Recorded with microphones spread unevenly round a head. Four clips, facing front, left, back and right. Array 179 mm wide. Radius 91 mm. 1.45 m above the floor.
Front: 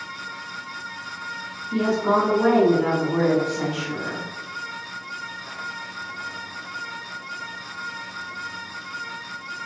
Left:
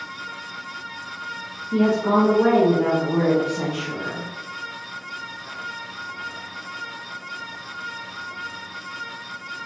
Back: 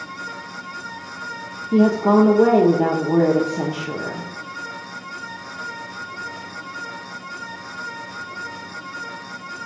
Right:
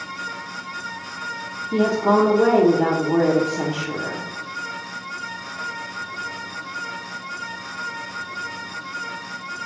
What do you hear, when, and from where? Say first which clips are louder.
1.7 s a woman speaking: right 1 dB, back 5 dB; 160° right, 0.7 m